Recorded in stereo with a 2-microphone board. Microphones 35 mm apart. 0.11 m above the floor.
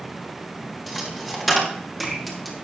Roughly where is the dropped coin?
Centre.